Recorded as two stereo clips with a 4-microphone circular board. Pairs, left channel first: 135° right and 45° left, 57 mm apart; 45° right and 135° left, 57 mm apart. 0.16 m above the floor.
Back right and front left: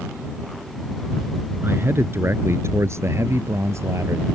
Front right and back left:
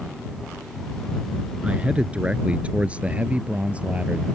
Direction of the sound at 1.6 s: 75° left.